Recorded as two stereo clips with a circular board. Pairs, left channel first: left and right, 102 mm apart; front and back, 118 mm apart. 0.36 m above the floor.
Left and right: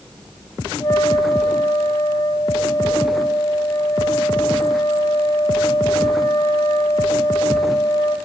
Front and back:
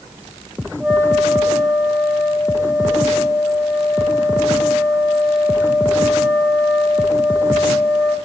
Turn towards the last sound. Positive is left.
turn(degrees=90)